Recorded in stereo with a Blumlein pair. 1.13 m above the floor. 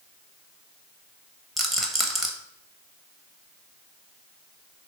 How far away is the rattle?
About 0.6 m.